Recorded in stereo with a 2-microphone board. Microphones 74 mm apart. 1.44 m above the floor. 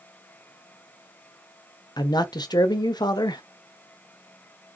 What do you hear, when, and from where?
2.0 s a man speaking: 70° left (ahead or behind), 0.7 m